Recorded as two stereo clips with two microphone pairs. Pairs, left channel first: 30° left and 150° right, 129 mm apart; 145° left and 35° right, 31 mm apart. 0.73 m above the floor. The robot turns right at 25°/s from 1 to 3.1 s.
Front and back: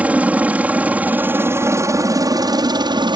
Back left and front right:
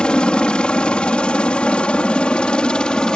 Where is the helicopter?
140° left; by 3.2 s 170° right.